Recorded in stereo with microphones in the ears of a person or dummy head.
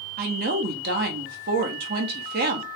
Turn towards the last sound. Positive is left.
turn(degrees=-50)  # may be behind; listen again after turning